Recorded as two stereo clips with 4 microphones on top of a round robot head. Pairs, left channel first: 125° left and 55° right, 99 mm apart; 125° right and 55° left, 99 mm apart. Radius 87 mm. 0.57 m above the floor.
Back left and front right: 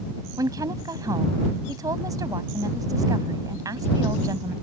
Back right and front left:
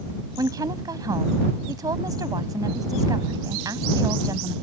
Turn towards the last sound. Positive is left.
turn(degrees=0)